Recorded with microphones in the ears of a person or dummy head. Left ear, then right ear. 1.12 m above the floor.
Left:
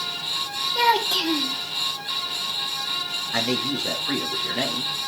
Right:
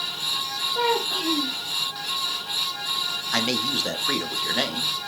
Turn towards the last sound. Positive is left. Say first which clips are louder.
# right 1 dB
turn(degrees=-30)  # may be behind; listen again after turning